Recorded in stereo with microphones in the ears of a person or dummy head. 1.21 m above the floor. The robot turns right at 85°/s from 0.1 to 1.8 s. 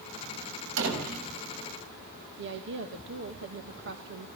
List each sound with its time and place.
0.8 s a door slam: 75° right, 6.5 m; by 1.3 s 30° right, 6.5 m
2.4 s a woman speaking: 60° right (ahead or behind), 1.7 m